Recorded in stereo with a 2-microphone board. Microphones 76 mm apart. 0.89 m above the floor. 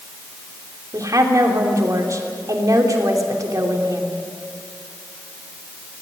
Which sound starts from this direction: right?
A woman speaking, at 0.9 s.